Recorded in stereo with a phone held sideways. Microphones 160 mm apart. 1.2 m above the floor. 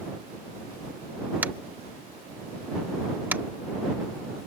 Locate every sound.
1.4 s tapping: 10° right (ahead or behind)